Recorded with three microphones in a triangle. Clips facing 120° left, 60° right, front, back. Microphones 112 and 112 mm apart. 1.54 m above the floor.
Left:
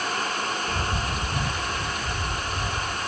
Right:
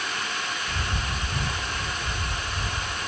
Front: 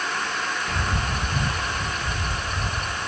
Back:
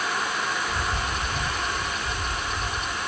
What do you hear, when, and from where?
0.7 s a bird: 45° left